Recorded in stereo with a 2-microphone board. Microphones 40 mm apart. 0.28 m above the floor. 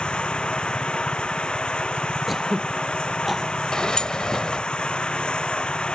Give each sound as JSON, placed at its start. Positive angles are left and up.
{"t": 0.0, "sound": "running water", "side_deg": 25}
{"t": 2.3, "sound": "throat clearing", "side_deg": 0}
{"t": 3.7, "sound": "a sliding door", "side_deg": 20}